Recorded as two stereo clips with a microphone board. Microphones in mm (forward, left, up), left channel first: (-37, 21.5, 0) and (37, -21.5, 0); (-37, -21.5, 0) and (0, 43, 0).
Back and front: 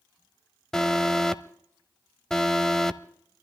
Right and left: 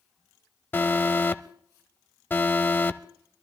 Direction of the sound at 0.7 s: 135° right.